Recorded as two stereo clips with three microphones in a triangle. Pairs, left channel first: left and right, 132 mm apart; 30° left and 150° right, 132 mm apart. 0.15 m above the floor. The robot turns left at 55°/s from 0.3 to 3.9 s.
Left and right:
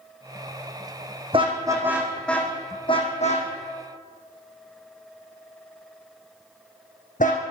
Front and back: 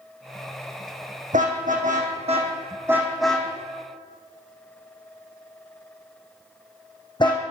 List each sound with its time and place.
1.3 s a car horn: 135° right, 3.5 m; by 7.4 s 85° left, 3.5 m